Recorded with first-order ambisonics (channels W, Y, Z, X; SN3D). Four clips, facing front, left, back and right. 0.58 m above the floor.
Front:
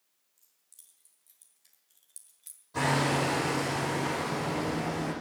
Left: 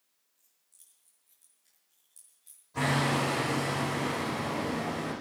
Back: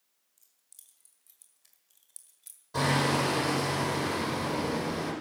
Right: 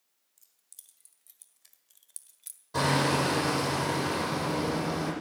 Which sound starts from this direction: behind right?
Hammering, at 2.7 s.